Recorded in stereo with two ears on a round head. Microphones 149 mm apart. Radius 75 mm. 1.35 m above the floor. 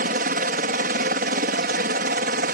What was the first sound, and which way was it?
A helicopter, 55° right (ahead or behind).